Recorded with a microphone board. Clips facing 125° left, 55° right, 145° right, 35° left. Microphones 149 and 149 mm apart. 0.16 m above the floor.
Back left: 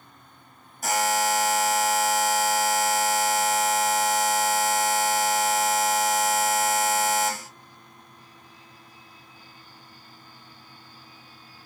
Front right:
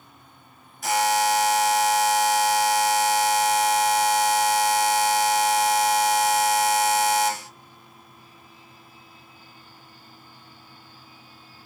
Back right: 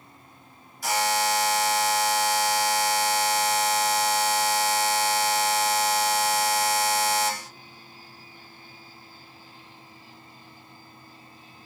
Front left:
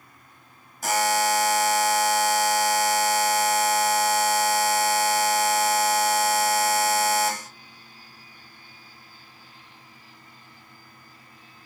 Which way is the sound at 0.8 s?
80° left.